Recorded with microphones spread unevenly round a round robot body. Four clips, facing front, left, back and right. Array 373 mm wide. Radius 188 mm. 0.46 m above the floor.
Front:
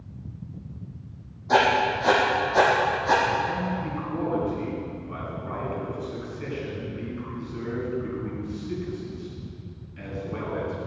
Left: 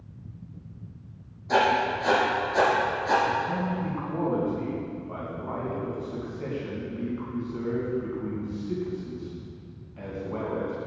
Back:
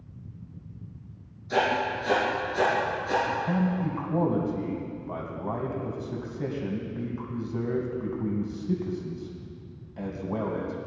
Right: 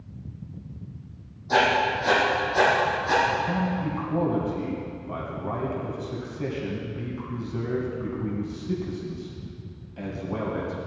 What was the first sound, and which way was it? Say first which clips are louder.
Writing: right 1 dB, front 5 dB; 5° left.